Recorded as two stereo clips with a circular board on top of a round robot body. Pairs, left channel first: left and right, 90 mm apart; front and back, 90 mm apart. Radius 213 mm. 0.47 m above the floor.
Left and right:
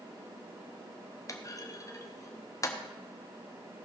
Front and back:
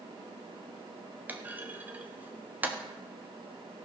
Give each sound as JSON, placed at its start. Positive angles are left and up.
{"t": 1.3, "sound": "a clunk", "azimuth_deg": 120, "distance_m": 1.6}